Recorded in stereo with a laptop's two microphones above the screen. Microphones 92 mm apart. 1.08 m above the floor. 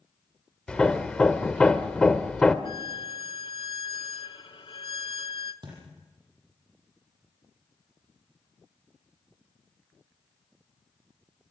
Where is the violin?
60° left (ahead or behind), 0.9 m.